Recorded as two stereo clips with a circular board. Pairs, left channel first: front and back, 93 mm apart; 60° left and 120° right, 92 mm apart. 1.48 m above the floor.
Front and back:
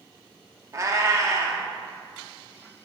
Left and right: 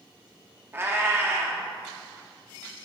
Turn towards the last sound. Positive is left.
turn(degrees=-165)